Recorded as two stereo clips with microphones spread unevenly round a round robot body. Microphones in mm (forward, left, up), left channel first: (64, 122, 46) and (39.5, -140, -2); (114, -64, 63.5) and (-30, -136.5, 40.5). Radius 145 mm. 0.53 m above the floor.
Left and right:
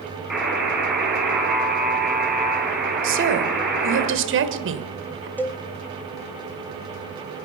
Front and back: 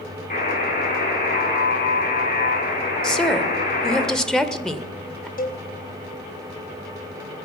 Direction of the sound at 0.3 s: 5° right.